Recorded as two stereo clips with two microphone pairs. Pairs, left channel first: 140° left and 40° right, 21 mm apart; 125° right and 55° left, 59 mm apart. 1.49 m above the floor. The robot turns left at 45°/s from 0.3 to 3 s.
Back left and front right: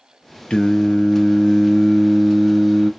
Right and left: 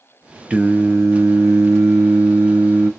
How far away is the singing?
About 0.6 m.